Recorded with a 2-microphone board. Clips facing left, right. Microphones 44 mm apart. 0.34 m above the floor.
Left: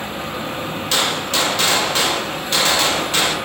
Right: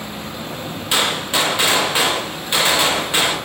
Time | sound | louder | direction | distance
0.9 | a gunshot | right 1 dB | 20° right (ahead or behind) | 0.6 m